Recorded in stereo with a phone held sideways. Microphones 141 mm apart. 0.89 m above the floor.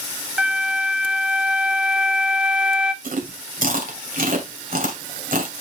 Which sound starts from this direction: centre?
A flute, at 0.4 s.